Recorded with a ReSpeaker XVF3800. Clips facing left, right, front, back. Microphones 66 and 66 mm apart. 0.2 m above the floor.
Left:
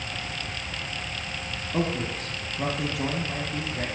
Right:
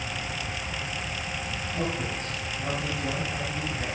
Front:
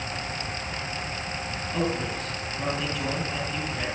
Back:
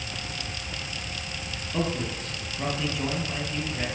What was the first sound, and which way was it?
A man speaking, 90° left.